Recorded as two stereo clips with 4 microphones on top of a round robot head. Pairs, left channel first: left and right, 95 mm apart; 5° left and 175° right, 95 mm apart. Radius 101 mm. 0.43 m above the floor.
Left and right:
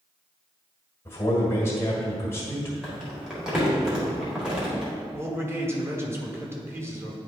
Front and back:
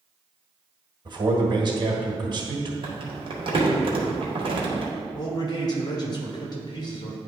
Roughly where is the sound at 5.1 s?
Ahead right.